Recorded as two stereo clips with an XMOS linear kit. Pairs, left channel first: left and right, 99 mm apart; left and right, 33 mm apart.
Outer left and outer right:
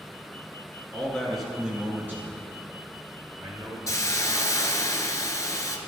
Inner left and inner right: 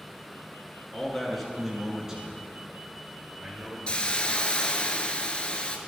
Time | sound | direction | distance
0.9 | a man speaking | 10° left (ahead or behind) | 1.6 m
3.9 | a hiss | 35° left (ahead or behind) | 0.7 m